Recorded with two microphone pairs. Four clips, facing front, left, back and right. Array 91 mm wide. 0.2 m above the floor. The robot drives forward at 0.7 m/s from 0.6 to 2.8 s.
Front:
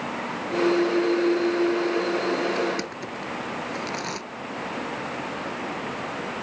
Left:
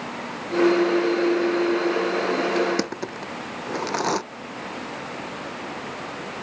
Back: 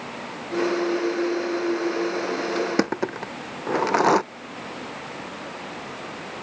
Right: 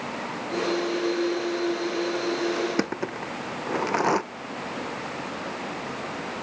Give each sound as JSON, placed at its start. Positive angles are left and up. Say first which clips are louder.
{"t": 2.6, "sound": "crushing", "louder": "left 3 dB, back 4 dB", "azimuth_deg": -175}